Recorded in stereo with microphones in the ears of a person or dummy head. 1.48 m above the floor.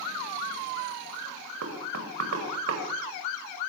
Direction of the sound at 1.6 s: 75° right (ahead or behind).